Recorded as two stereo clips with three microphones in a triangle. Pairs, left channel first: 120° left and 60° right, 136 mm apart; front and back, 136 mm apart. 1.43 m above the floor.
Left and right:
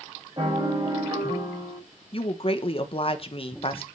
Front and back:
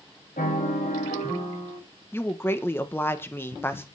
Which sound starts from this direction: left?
A woman speaking, at 2.1 s.